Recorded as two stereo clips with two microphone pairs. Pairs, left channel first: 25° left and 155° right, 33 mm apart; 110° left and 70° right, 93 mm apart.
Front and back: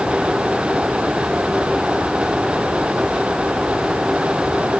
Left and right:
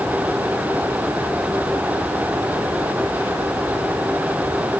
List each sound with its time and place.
Only background noise.